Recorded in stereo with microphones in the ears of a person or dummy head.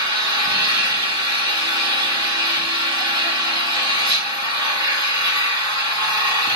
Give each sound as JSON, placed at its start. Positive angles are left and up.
{"t": 0.0, "sound": "an engine running", "side_deg": -15, "distance_m": 1.4}